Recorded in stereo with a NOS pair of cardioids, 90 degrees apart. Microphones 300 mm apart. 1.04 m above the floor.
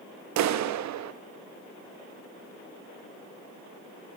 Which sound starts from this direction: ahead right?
A clap, at 0.4 s.